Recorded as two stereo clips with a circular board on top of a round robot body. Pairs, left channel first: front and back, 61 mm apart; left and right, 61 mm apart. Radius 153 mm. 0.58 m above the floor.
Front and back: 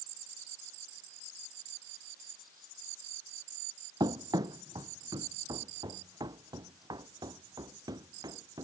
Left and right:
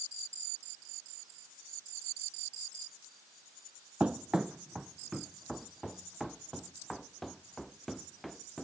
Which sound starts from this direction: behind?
Running footsteps, at 4.0 s.